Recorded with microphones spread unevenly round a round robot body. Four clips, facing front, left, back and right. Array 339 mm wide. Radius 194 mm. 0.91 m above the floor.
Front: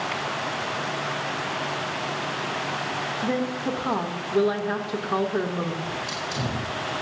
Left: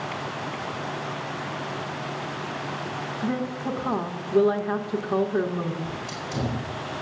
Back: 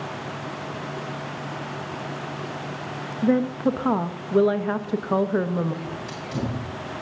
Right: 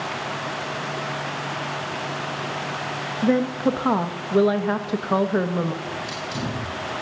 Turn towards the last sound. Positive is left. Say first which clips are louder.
# right 3 dB, front 2 dB
turn(degrees=175)